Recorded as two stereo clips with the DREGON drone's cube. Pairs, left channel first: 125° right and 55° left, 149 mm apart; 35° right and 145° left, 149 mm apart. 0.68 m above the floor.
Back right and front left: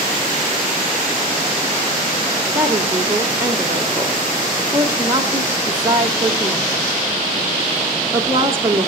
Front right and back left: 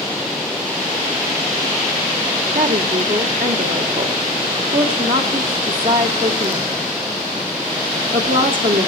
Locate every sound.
2.5 s a woman speaking: 125° left, 2.5 m